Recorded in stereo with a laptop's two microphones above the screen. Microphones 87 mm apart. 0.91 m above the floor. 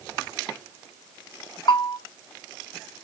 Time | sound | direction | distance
1.7 | a bell | 60° left (ahead or behind) | 0.6 m